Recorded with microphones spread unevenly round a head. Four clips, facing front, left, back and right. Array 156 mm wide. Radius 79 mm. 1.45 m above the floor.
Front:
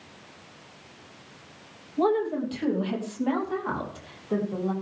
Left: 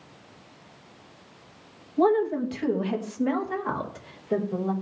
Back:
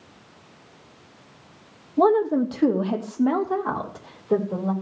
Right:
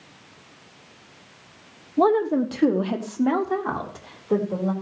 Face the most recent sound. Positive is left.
turn(degrees=-135)